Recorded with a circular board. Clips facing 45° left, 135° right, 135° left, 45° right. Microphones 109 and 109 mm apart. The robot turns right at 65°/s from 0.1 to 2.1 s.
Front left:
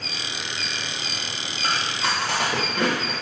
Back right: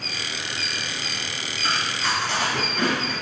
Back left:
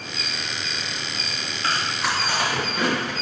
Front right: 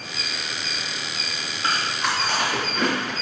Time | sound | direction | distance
1.6 | chewing | 25° left | 1.0 m